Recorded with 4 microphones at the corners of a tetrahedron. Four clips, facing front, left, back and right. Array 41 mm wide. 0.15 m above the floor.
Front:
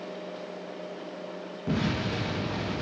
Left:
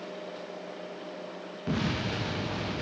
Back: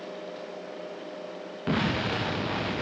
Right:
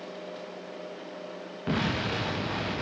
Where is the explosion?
160° right, 6.5 m.